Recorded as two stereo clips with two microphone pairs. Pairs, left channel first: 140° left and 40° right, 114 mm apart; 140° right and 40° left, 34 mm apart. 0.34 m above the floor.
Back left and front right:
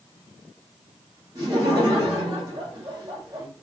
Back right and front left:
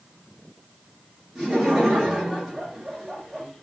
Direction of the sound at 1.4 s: 35° right.